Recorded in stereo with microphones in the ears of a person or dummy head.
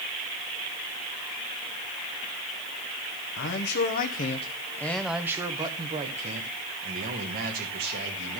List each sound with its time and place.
3.4 s a man speaking: 65° left (ahead or behind), 1.2 m; by 8.4 s 50° right (ahead or behind), 2.5 m